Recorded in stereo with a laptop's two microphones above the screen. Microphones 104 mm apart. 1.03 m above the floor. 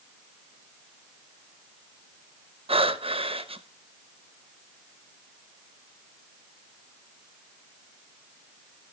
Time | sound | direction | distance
2.7 | breathing | 70° right (ahead or behind) | 1.0 m